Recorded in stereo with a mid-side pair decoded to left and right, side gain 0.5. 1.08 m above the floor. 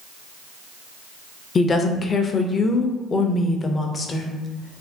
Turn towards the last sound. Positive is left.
turn(degrees=35)